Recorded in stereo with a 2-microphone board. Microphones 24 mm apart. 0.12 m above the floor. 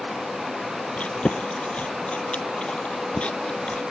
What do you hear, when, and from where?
1.0 s chewing: 55° left (ahead or behind)